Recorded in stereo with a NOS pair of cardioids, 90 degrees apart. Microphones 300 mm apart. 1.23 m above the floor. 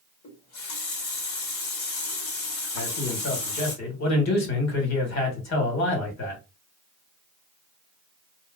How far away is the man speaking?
About 1.9 m.